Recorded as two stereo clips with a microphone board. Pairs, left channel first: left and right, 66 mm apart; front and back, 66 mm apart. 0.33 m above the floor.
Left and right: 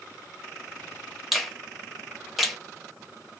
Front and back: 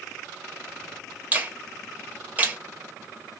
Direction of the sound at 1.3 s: 175° right.